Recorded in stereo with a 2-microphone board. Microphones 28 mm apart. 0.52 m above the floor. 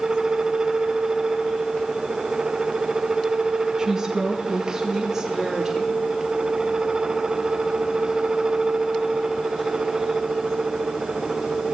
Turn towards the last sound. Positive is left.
turn(degrees=-10)  # may be behind; listen again after turning